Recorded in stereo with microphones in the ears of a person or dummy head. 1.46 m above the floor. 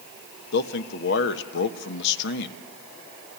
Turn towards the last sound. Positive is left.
turn(degrees=55)  # may be behind; listen again after turning